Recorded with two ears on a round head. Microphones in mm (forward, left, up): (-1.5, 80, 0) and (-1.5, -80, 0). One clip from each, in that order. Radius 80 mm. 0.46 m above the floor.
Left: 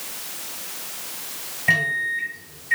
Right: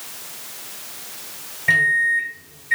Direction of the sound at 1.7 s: 5° right (ahead or behind).